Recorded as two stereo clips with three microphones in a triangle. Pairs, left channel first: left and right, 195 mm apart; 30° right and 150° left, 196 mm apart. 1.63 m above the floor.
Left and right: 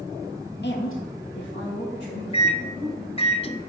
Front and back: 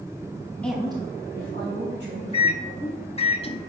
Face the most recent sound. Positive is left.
turn(degrees=25)